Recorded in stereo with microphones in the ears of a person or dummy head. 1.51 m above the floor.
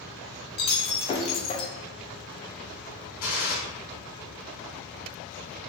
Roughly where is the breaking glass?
Left.